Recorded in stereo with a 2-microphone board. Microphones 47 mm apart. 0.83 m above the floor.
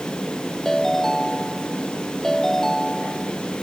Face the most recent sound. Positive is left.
turn(degrees=10)  # may be behind; listen again after turning